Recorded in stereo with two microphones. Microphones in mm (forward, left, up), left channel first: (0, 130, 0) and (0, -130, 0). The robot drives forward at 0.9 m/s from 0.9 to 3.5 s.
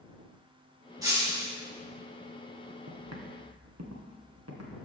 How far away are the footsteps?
About 1.5 m.